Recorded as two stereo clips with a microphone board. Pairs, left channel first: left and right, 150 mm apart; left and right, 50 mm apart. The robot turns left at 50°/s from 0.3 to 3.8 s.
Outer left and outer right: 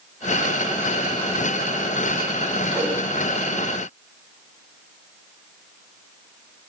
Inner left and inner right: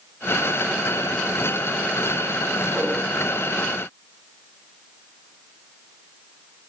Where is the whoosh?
5° right (ahead or behind), 7 m; by 3.0 s 15° right (ahead or behind), 7 m.